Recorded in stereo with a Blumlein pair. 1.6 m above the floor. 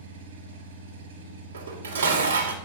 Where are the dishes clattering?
70° right, 3 m.